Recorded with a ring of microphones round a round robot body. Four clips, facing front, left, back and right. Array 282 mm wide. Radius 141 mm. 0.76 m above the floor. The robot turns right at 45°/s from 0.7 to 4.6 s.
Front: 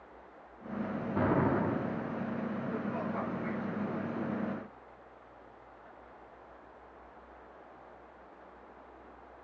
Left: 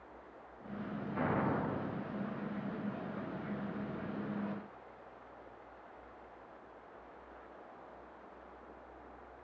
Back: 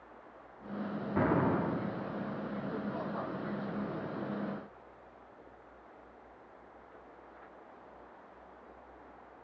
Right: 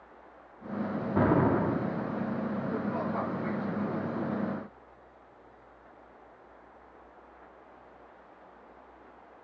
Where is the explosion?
95° right, 1.3 m; by 2.1 s 55° right, 1.3 m.